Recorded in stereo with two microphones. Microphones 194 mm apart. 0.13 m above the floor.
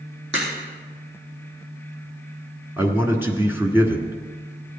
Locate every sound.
0.3 s a crack: 65° right (ahead or behind), 4.5 m
2.8 s a man speaking: 10° right (ahead or behind), 1.4 m